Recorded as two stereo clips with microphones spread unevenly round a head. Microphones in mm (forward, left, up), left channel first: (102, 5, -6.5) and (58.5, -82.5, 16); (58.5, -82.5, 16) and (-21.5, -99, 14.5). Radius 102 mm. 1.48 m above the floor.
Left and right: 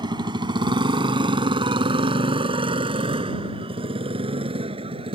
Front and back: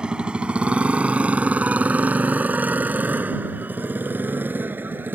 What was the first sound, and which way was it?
A motorcycle, 90° right.